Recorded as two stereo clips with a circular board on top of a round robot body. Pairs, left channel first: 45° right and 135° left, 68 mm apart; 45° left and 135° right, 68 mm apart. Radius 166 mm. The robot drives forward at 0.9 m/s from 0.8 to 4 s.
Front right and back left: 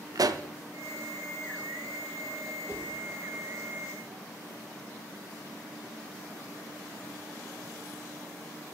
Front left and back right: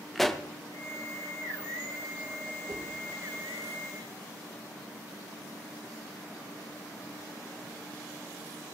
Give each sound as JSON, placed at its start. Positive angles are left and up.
{"t": 0.1, "sound": "a pop", "azimuth_deg": 130, "distance_m": 0.8}
{"t": 2.7, "sound": "a whoosh", "azimuth_deg": -170, "distance_m": 3.0}